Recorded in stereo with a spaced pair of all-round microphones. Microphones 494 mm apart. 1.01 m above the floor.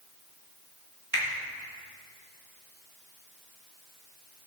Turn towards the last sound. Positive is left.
turn(degrees=-50)  # may be behind; listen again after turning